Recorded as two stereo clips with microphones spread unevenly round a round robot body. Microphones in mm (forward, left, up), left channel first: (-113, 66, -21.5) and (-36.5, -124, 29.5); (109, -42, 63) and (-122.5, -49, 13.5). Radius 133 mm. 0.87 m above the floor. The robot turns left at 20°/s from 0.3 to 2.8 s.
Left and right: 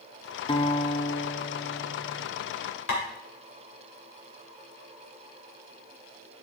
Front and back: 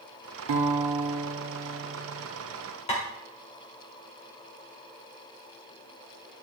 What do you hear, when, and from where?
0.5 s a guitar: straight behind, 1.1 m; by 2.3 s 140° left, 1.1 m
2.9 s tapping: 70° left, 2 m